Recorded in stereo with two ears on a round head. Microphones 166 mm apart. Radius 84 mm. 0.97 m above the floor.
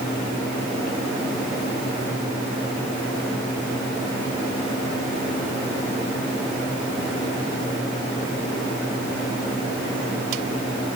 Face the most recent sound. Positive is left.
No sound to turn to.